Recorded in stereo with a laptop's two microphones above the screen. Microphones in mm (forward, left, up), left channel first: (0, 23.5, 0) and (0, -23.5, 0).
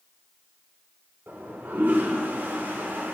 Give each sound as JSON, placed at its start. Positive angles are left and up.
{"t": 1.3, "sound": "a toilet flushing", "side_deg": -45, "distance_m": 1.3}